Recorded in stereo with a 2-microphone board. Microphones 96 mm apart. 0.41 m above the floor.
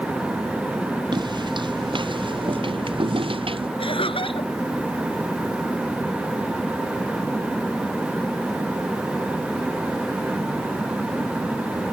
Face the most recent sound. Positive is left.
turn(degrees=70)  # may be behind; listen again after turning